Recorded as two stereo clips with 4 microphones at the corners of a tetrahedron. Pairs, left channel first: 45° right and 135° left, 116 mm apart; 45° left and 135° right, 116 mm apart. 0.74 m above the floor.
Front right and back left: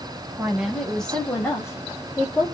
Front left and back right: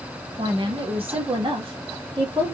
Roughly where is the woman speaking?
Behind.